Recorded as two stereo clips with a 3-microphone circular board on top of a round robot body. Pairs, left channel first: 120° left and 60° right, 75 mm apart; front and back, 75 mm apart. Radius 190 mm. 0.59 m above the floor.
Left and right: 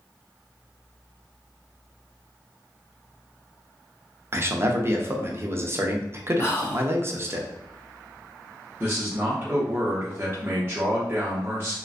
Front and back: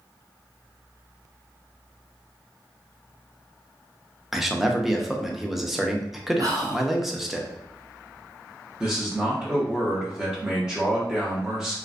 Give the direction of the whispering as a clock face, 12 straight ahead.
7 o'clock.